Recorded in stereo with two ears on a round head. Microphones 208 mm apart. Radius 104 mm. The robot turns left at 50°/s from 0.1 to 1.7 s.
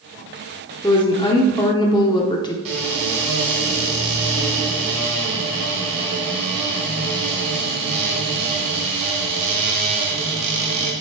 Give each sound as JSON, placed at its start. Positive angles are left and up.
{"t": 0.8, "sound": "a woman speaking", "side_deg": 20, "distance_m": 0.7}
{"t": 2.6, "sound": "a cupboard door", "side_deg": -65, "distance_m": 2.5}